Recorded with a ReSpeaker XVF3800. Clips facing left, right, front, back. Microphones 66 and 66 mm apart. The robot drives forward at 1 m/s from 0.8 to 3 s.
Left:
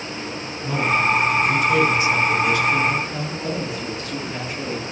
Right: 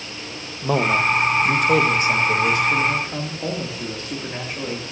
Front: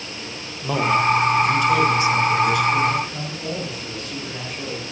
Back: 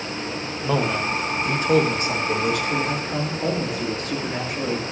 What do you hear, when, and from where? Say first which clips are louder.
0.6 s a man speaking: right 1 dB, front 5 dB; 90° right, 1.3 m; by 4.8 s 150° right, 2.5 m